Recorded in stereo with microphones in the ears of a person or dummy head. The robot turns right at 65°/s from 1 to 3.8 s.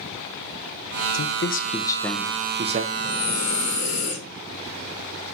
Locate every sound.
1.1 s a man speaking: 115° left, 1.0 m; by 2.8 s 135° right, 1.0 m
2.9 s breathing: 70° left, 3.5 m; by 4.2 s 125° left, 3.5 m